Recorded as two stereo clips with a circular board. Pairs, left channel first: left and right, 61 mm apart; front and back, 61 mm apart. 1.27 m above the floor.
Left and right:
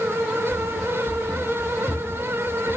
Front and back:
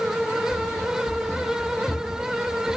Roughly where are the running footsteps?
Ahead left.